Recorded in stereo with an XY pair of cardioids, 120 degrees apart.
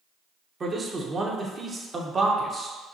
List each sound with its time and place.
0.6 s a man speaking: 30° right, 0.8 m